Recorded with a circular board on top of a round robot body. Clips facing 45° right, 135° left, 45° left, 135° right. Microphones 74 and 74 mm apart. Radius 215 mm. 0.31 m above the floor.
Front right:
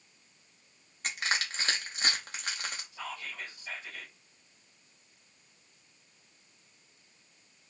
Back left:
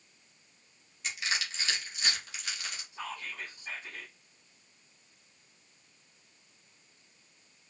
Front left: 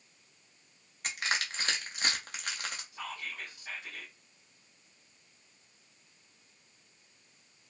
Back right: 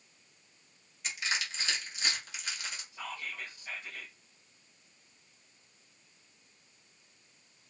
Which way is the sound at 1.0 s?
Straight ahead.